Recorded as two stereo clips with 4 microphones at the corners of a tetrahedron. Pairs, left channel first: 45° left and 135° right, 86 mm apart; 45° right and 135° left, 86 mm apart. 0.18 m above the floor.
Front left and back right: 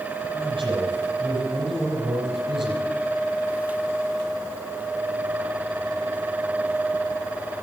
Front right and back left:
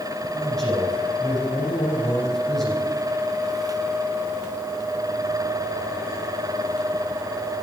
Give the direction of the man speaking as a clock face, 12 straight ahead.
4 o'clock.